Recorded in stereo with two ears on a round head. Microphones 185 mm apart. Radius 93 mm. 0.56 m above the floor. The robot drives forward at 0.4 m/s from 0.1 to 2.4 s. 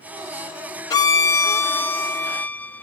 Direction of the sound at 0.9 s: 20° left (ahead or behind).